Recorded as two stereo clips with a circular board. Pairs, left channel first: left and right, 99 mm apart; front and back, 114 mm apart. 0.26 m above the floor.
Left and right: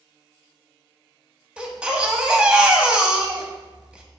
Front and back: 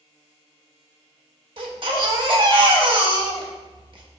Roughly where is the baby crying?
Behind.